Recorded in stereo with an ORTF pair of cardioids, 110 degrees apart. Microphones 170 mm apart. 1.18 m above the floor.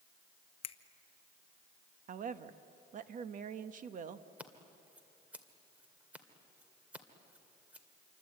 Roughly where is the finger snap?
Ahead left.